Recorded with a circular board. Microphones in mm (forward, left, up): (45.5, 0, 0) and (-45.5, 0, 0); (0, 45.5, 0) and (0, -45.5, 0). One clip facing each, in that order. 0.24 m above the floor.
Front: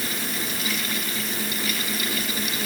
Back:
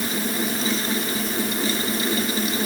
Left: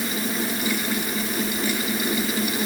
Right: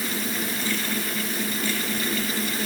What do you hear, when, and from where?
Only background noise.